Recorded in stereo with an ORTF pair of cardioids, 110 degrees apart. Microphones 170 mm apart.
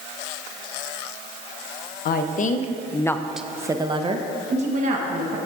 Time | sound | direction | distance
2.0 | a woman speaking | 65° left | 0.9 m